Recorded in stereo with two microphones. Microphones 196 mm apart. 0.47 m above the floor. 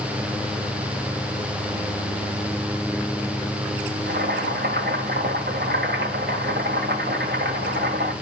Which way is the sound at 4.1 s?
60° right (ahead or behind).